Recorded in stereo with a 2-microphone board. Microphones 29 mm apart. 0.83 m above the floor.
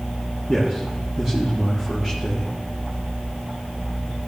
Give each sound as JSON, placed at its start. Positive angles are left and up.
{"t": 0.5, "sound": "a man speaking", "side_deg": -10, "distance_m": 1.4}